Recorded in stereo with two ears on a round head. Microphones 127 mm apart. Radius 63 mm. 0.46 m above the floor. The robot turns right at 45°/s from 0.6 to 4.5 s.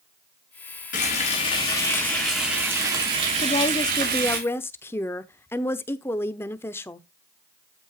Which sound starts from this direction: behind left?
Frying, at 0.9 s.